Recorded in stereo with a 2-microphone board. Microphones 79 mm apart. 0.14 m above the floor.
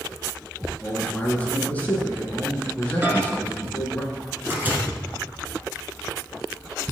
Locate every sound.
0.8 s a man speaking: 20° left (ahead or behind), 1.6 m
3.0 s a microwave: 25° right (ahead or behind), 1.3 m